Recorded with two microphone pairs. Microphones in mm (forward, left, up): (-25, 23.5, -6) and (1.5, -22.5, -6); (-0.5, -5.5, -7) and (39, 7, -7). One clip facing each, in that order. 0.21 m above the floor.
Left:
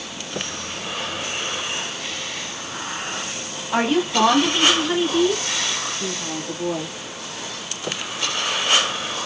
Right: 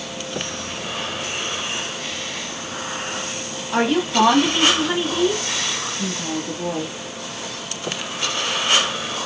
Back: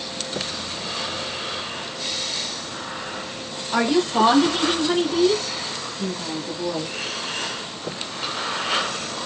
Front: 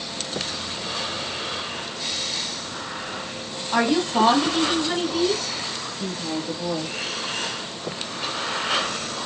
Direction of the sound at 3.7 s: 65° left.